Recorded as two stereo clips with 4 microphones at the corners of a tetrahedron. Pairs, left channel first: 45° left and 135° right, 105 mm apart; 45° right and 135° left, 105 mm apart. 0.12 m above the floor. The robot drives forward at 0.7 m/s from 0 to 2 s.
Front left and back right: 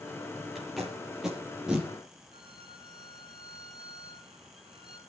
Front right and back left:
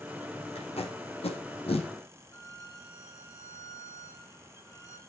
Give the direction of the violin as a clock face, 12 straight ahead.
3 o'clock.